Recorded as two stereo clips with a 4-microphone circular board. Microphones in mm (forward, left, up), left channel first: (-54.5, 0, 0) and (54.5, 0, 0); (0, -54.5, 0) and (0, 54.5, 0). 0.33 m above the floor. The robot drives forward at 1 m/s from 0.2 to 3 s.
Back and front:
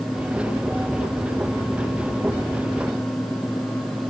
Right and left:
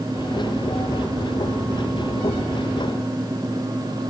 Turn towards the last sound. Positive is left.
No sound to turn to.